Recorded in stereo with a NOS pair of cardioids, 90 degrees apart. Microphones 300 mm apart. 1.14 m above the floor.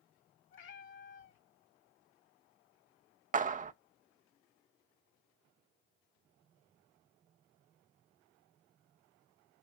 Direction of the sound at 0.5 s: 40° left.